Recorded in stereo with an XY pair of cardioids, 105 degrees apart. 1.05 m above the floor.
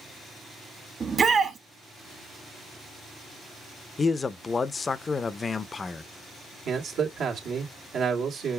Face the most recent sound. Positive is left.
turn(degrees=-60)